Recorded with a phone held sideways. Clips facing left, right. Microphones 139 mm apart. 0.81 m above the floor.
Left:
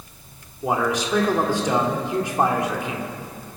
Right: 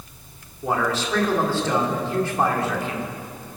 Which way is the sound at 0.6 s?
15° left (ahead or behind).